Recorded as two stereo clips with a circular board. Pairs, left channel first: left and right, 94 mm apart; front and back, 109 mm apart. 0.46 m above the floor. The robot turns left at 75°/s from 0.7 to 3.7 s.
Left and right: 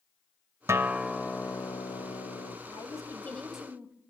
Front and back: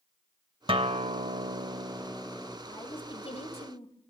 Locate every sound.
0.7 s a guitar: 150° right, 0.7 m; by 2.6 s 70° left, 0.7 m
2.7 s a woman speaking: 60° left, 2.0 m; by 4.0 s 15° right, 2.0 m